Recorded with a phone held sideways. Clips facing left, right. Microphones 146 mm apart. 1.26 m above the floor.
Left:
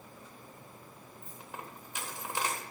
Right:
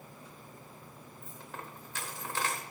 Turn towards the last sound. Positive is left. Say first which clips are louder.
# even
turn(degrees=15)  # may be behind; listen again after turning